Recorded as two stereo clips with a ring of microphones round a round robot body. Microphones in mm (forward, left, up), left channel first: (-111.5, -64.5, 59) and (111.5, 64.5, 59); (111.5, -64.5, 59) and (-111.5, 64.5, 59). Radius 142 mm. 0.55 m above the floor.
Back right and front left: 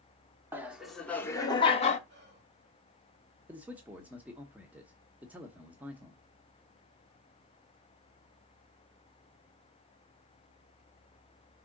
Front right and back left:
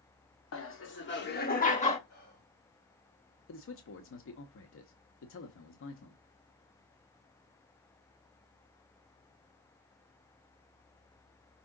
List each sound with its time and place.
0.5 s laughter: 50° right, 1.3 m; by 2.0 s 95° right, 1.2 m
2.1 s whispering: 15° right, 2.5 m
3.5 s a man speaking: 55° right, 1.1 m